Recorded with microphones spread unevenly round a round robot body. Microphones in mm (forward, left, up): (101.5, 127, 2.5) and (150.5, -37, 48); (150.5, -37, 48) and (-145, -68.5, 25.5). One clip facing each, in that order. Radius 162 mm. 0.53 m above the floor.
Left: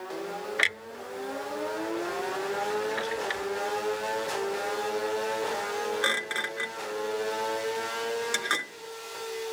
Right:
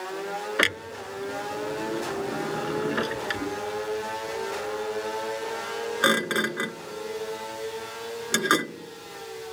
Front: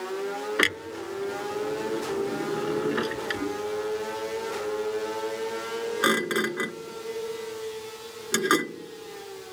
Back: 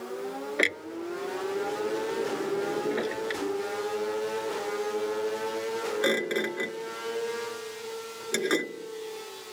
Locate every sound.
0.6 s a clunk: 60° right